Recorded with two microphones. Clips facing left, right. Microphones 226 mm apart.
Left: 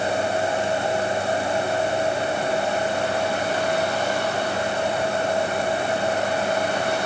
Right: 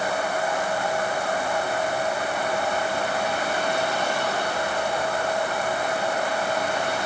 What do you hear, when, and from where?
Only background noise.